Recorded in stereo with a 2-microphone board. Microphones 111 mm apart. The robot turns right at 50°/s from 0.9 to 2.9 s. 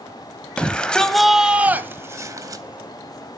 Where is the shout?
165° left, 1.0 m; by 2.6 s 110° right, 1.0 m.